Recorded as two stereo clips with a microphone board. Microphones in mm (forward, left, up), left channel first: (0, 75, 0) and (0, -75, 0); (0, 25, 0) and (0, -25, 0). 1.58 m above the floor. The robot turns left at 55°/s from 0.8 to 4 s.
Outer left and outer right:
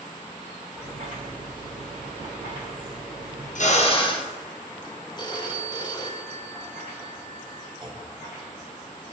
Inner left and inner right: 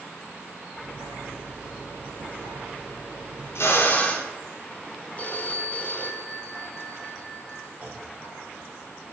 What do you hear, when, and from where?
3.5 s a drill: 60° left (ahead or behind), 0.8 m; by 4.3 s 35° left (ahead or behind), 0.8 m
5.2 s a phone ringing: 30° left (ahead or behind), 0.6 m
7.8 s a clunk: 30° right (ahead or behind), 1.1 m